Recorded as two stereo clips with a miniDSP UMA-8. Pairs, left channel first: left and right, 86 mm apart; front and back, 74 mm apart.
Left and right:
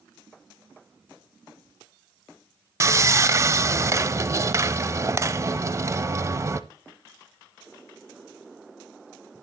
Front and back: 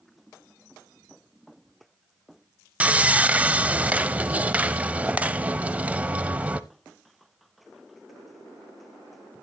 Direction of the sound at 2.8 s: 120° right.